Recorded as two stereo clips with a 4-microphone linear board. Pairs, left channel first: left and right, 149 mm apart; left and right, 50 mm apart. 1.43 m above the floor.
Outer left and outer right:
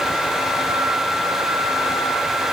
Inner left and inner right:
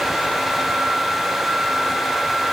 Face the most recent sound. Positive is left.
No sound to turn to.